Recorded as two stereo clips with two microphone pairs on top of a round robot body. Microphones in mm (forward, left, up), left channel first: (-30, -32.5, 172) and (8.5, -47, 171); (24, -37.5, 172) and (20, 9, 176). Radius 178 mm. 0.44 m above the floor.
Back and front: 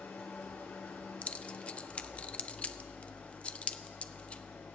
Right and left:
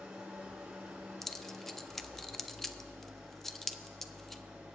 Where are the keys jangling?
155° right, 0.7 m.